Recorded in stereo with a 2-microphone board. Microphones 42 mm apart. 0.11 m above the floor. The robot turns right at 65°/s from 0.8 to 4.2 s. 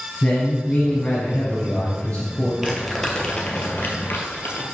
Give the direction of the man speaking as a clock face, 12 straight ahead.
11 o'clock.